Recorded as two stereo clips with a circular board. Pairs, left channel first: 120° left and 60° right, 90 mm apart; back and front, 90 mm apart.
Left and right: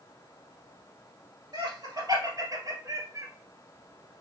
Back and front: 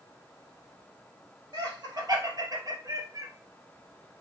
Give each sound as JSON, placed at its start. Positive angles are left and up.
{"t": 1.5, "sound": "laughter", "azimuth_deg": -30, "distance_m": 2.5}